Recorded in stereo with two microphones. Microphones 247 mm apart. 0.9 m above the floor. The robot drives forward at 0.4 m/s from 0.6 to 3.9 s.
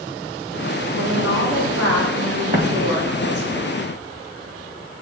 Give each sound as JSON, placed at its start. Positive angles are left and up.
{"t": 1.0, "sound": "a woman speaking", "side_deg": -70, "distance_m": 2.5}
{"t": 2.5, "sound": "an explosion", "side_deg": -35, "distance_m": 1.6}